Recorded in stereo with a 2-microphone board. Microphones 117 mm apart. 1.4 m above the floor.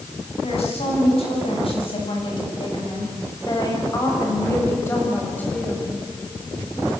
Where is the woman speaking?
65° left (ahead or behind), 9.5 m; by 5.9 s 10° left (ahead or behind), 7.5 m.